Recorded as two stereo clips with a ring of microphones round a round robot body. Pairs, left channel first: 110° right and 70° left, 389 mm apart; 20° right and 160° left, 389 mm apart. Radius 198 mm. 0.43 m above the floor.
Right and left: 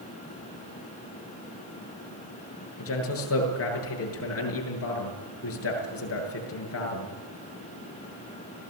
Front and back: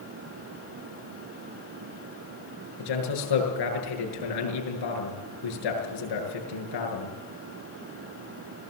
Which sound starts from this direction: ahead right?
A man speaking, at 2.8 s.